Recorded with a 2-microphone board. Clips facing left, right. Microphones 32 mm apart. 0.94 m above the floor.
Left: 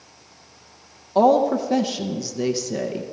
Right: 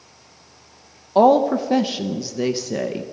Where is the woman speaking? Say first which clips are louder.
Right 2 dB; 15° right (ahead or behind), 0.6 m.